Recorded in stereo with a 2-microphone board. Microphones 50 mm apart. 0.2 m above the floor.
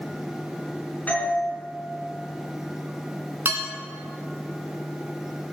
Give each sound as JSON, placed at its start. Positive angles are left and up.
{"t": 1.1, "sound": "a doorbell", "side_deg": 30, "distance_m": 3.0}
{"t": 3.5, "sound": "dishes clattering", "side_deg": -45, "distance_m": 1.5}